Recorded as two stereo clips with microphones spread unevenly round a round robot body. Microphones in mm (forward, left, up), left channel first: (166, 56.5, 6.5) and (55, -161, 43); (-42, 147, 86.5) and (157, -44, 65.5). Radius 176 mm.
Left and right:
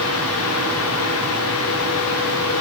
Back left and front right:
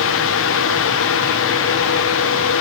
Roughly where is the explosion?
I don't hear an explosion.